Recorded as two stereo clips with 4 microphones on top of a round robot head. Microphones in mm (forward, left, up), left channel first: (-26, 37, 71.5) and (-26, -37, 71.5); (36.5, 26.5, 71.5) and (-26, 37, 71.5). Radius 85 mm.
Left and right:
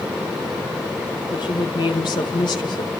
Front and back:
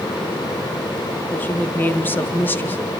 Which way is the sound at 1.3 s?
50° left.